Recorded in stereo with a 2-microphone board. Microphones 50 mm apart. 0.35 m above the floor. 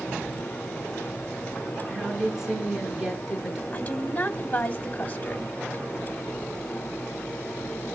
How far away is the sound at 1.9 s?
About 5.5 m.